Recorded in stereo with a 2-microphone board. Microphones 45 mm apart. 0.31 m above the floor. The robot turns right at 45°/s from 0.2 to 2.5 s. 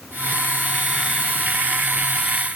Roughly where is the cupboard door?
No cupboard door in this recording.